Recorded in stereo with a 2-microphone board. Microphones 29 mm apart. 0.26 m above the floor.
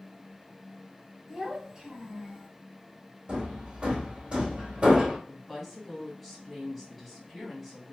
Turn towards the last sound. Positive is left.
turn(degrees=5)  # may be behind; listen again after turning